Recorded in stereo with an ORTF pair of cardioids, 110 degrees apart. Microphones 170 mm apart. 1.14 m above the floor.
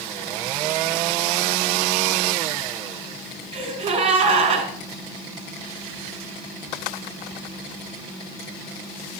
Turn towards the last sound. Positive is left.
turn(degrees=-35)